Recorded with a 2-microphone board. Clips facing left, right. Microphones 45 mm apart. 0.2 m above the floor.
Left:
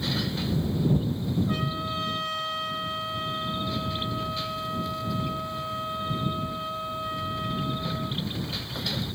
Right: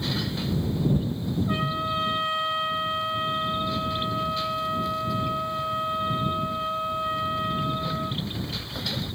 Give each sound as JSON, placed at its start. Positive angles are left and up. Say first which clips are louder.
{"t": 1.5, "sound": "a trumpet", "louder": "right 3 dB", "side_deg": -20}